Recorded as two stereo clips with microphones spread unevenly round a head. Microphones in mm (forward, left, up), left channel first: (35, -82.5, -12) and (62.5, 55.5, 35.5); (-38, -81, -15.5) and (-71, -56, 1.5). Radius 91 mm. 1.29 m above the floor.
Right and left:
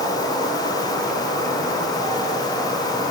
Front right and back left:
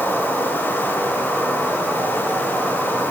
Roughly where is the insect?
Ahead.